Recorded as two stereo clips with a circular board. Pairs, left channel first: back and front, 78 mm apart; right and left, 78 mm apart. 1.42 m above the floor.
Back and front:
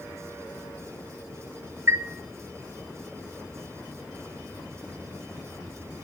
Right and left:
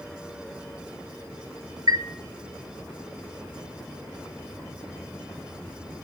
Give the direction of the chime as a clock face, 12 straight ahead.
10 o'clock.